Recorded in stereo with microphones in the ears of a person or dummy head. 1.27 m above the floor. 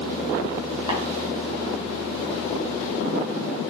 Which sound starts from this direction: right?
Tapping, at 0.9 s.